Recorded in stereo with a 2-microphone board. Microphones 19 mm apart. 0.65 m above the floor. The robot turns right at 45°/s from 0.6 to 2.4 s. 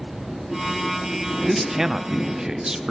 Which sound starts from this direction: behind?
A man speaking, at 1.5 s.